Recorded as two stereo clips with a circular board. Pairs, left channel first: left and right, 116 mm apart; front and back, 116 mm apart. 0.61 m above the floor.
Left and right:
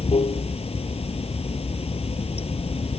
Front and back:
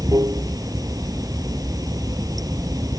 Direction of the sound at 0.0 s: 120° left.